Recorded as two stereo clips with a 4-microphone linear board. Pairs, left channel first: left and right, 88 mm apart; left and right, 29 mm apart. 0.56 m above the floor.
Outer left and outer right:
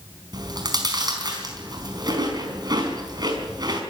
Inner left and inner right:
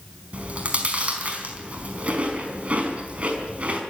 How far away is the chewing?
About 4.5 m.